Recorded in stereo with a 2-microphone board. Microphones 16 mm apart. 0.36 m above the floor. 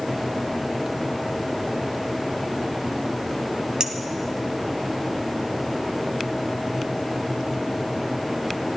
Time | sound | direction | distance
3.8 | a clink | 70° right (ahead or behind) | 1.3 m